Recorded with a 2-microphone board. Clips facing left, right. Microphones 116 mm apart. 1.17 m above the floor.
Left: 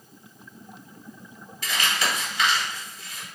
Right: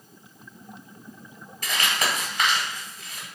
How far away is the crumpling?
About 1.6 m.